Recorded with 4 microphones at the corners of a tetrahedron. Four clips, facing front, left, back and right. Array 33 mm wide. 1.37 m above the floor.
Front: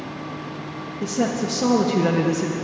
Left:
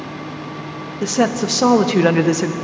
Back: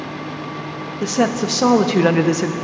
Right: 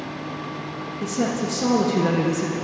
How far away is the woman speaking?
About 1.0 m.